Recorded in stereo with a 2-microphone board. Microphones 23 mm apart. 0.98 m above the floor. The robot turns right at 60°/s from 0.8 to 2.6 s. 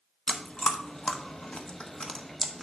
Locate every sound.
0.3 s chewing: 60° left (ahead or behind), 0.7 m; by 2.6 s 5° left (ahead or behind), 0.7 m